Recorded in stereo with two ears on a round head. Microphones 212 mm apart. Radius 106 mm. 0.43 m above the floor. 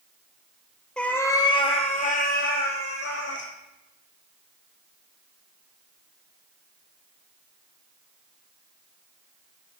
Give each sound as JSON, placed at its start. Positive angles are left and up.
{"t": 1.0, "sound": "a cat meowing", "side_deg": 5, "distance_m": 1.2}